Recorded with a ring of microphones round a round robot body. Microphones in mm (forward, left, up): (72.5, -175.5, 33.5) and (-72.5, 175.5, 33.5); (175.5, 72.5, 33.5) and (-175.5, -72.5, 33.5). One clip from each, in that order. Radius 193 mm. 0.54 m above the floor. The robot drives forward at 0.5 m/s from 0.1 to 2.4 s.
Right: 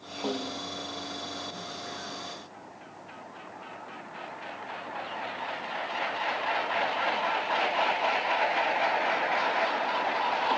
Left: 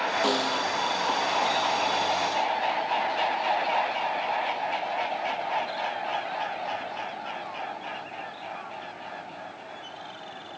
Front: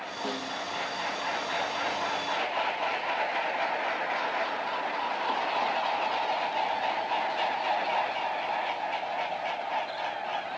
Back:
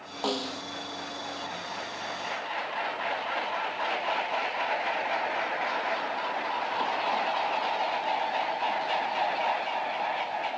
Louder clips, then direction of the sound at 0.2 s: Left 9 dB, back 4 dB; 145° left.